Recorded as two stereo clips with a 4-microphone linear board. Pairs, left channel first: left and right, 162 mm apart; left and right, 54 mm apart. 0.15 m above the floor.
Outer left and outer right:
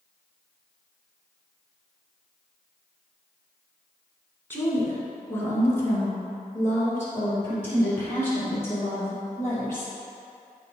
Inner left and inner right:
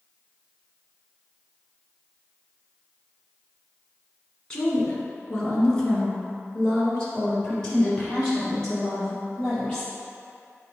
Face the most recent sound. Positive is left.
turn(degrees=15)  # may be behind; listen again after turning